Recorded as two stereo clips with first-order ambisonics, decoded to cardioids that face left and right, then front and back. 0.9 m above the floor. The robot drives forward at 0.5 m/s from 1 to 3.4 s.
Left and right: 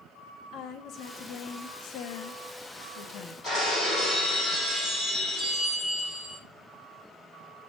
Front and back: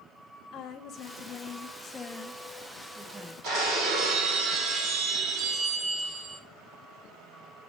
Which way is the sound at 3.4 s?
160° left.